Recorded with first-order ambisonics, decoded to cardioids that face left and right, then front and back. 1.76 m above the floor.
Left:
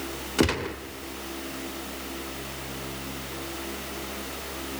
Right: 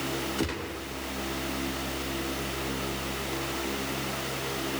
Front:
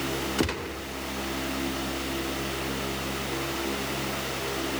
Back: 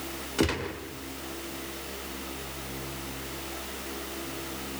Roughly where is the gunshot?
Left.